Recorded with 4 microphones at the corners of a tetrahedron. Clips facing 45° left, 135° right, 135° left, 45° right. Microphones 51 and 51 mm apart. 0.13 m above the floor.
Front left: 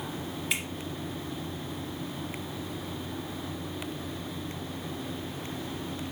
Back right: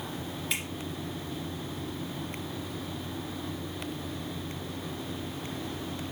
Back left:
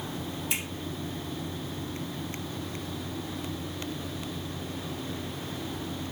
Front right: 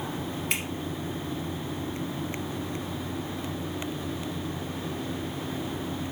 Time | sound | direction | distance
0.5 | a finger snap | 45° right | 2 m